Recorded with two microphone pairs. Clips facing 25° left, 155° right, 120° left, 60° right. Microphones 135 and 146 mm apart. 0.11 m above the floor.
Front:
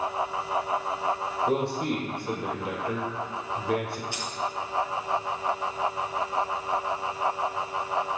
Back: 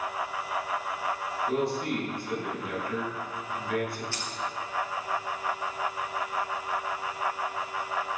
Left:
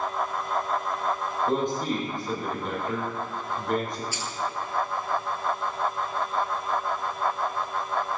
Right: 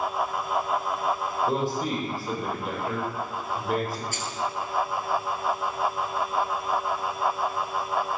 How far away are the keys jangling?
About 1.7 m.